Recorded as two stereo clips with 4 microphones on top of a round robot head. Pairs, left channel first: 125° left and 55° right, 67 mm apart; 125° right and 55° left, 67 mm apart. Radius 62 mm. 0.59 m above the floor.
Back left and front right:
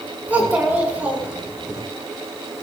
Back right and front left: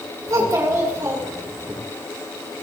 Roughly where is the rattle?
I don't hear a rattle.